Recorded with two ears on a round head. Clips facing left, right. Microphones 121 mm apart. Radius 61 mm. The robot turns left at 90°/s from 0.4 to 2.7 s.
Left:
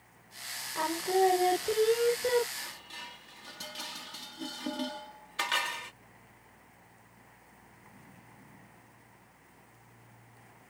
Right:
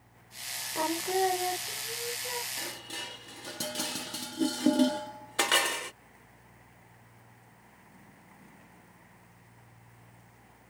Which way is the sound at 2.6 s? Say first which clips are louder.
Right 5 dB; 65° right (ahead or behind).